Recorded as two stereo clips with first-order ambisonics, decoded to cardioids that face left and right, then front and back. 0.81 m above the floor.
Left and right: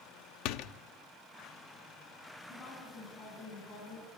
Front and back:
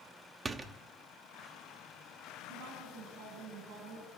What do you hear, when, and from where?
0.5 s a door slam: 105° left, 1.0 m
2.5 s a woman speaking: 150° left, 6.5 m